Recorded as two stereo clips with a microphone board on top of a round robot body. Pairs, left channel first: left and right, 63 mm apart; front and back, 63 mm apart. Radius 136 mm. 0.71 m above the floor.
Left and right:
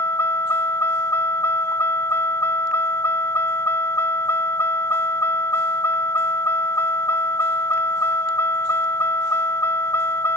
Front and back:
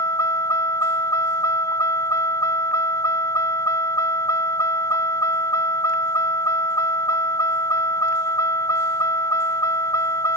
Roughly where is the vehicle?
Ahead left.